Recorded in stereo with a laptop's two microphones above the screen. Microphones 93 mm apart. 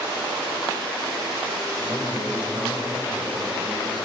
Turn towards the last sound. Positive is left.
turn(degrees=-55)  # may be behind; listen again after turning